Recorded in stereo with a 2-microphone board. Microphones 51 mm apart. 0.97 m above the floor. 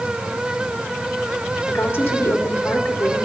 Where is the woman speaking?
50° left (ahead or behind), 2 m.